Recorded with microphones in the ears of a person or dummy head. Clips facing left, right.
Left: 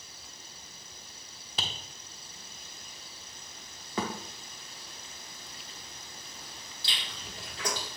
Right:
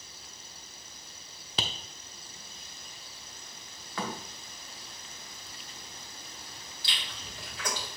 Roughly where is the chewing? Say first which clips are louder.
Left 1 dB; left.